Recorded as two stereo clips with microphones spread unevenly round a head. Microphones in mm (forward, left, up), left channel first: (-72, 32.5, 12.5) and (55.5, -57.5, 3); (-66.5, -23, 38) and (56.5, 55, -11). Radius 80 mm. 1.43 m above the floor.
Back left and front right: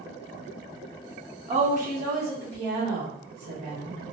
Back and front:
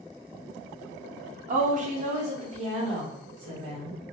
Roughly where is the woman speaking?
Ahead.